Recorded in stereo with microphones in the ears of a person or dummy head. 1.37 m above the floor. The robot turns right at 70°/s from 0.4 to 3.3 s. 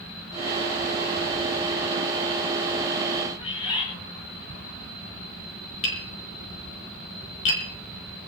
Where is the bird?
30° left (ahead or behind), 8 m.